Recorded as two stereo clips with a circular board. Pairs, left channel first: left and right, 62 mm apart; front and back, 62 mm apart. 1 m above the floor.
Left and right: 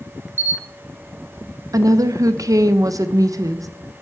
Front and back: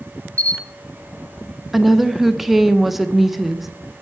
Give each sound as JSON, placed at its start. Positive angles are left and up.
{"t": 0.4, "sound": "a camera shutter", "azimuth_deg": -145, "distance_m": 0.8}
{"t": 1.7, "sound": "a woman speaking", "azimuth_deg": -90, "distance_m": 0.5}